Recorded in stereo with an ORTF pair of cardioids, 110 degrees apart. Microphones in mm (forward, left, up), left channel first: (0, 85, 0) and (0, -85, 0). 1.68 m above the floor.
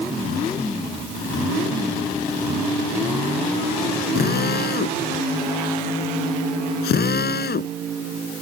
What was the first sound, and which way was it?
A drill, 65° left.